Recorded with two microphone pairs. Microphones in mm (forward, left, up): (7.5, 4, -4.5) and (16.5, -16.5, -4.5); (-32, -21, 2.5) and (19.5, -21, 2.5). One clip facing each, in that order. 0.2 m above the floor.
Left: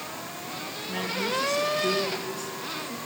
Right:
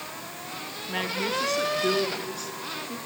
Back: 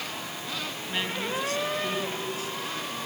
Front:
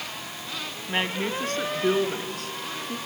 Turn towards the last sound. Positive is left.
turn(degrees=-15)